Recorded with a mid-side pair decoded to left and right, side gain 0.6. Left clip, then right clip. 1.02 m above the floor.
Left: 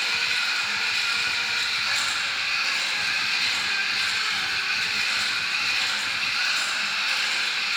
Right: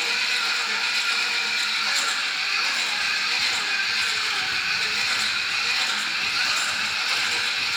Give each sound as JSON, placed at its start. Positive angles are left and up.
{"t": 0.0, "sound": "a machine running", "azimuth_deg": -10, "distance_m": 1.9}